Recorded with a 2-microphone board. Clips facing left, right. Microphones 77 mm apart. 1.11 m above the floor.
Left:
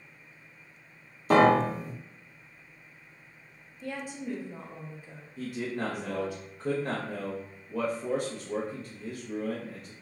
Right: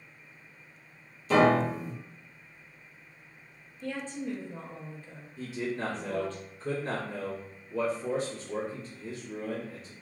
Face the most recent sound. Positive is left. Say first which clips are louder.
# even
turn(degrees=55)  # may be behind; listen again after turning